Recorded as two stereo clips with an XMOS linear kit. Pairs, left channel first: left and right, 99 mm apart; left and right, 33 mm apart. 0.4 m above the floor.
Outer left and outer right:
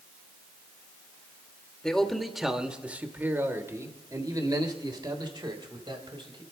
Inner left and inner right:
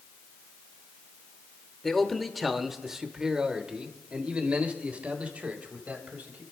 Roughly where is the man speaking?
Centre.